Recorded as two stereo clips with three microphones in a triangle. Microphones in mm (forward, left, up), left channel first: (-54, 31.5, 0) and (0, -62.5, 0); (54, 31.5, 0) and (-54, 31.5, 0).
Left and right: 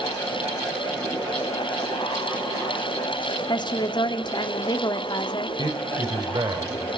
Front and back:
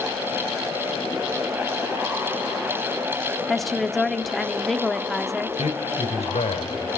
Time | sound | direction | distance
3.5 | a woman speaking | 90° left | 1.4 m
5.6 | a man speaking | 10° right | 3 m